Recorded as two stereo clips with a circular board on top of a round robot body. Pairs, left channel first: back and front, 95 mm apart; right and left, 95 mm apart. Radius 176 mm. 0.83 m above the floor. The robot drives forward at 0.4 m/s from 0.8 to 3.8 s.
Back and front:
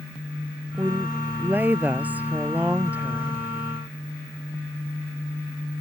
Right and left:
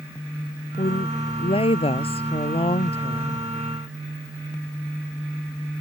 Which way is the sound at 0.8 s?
70° right.